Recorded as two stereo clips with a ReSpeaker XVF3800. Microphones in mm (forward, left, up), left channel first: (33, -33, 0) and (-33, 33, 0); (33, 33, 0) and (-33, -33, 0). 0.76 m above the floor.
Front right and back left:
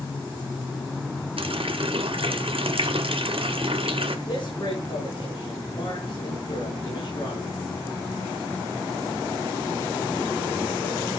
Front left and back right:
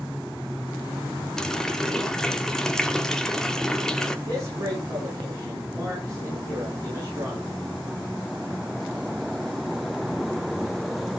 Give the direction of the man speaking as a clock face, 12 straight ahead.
3 o'clock.